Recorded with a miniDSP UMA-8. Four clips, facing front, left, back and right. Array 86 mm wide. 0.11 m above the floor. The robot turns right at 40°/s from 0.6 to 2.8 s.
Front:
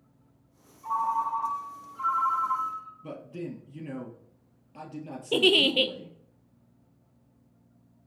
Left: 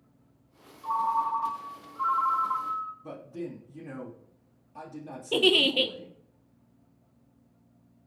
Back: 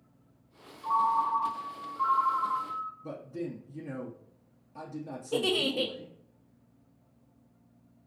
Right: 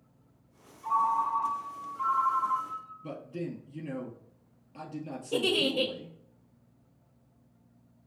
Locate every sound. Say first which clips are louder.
0.8 s a ringtone: even, back 1 dB; 85° right, 1.7 m; by 2.9 s 5° right, 1.7 m
3.0 s a man speaking: even, even; 35° right, 1.9 m
5.3 s a giggle: left 4 dB, front 5 dB; 30° left, 0.5 m